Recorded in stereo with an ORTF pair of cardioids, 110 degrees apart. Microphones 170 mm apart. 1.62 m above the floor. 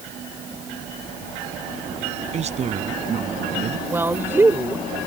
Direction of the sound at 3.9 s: 15° right.